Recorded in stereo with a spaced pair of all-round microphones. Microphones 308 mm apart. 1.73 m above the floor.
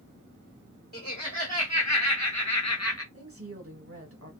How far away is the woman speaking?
About 1.4 m.